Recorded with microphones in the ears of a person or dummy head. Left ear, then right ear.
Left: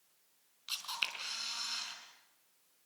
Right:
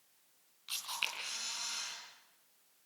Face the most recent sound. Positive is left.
turn(degrees=15)  # may be behind; listen again after turning